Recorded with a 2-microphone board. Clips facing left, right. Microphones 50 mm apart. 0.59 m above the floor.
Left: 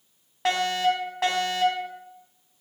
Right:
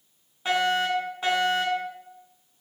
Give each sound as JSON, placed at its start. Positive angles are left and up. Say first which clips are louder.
{"t": 0.5, "sound": "a fire alarm", "louder": "even", "side_deg": 75, "distance_m": 6.5}